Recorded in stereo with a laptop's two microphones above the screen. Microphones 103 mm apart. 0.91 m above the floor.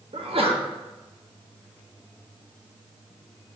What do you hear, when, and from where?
0.1 s a sneeze: 70° right (ahead or behind), 1.4 m